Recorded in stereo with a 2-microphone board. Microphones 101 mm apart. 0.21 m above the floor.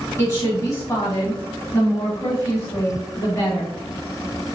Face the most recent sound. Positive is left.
turn(degrees=30)  # may be behind; listen again after turning